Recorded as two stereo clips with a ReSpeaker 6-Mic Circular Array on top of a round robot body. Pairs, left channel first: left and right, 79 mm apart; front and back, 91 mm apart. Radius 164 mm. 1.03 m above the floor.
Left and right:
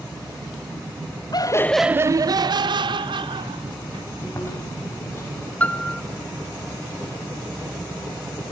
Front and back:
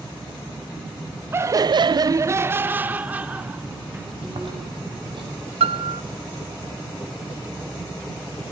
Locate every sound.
1.3 s laughter: 115° left, 0.7 m; by 4.1 s 100° right, 2.5 m
4.2 s chewing: 150° left, 9.5 m
5.6 s a piano: 165° left, 0.7 m